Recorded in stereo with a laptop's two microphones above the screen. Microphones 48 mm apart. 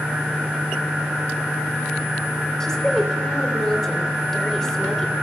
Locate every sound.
2.6 s a woman speaking: 10° left (ahead or behind), 3 m